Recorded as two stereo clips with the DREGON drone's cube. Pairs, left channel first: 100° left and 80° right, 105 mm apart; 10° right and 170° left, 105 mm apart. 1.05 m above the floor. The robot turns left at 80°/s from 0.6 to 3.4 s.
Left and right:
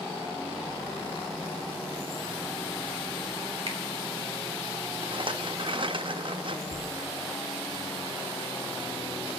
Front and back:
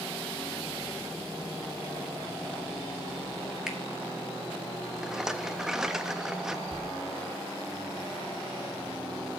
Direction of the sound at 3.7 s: 105° right.